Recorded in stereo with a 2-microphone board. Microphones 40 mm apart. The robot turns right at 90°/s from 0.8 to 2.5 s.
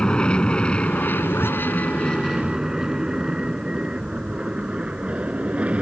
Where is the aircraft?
20° left (ahead or behind); by 5.8 s 30° right (ahead or behind).